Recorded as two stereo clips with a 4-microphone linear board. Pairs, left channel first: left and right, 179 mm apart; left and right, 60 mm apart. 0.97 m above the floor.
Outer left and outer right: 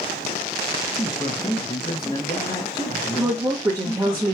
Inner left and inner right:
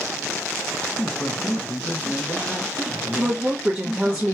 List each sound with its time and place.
1.0 s a man speaking: 25° left (ahead or behind), 0.8 m
3.2 s a woman speaking: 15° right (ahead or behind), 0.7 m